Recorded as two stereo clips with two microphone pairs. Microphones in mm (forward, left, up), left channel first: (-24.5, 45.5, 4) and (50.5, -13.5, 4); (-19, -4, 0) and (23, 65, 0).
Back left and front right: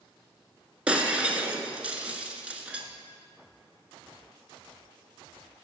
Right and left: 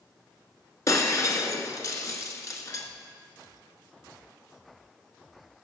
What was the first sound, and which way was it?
Breaking glass, 105° right.